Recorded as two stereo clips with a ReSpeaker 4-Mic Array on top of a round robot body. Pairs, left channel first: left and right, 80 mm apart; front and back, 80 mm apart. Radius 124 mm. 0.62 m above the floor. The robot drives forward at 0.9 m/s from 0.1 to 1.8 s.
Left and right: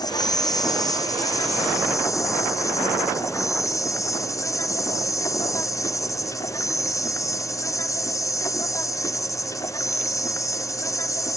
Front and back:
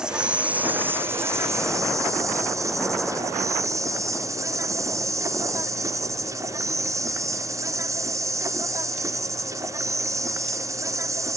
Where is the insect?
100° left; by 11.4 s 135° left.